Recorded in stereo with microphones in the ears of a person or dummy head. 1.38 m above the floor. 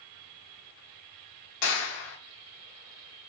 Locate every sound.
1.6 s a clap: 85° left, 1.4 m